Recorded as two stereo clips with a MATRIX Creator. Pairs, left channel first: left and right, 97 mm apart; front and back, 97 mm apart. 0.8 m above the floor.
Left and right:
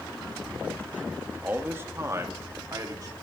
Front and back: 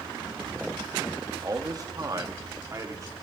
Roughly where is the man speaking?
Behind right.